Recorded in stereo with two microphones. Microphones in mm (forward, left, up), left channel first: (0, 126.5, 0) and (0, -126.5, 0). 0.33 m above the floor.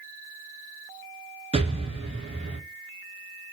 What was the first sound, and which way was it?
An explosion, 20° right (ahead or behind).